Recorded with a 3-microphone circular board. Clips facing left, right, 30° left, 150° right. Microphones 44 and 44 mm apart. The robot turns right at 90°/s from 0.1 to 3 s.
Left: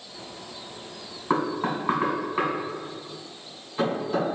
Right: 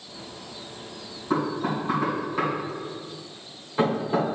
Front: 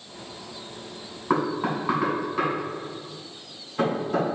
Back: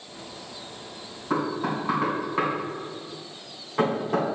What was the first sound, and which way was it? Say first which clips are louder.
Knocking: even, front 2 dB; 65° left.